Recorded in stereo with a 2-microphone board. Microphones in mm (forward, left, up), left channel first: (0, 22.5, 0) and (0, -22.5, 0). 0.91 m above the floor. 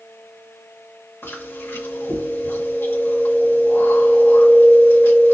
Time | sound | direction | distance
1.2 | chewing | 65° left (ahead or behind) | 1.7 m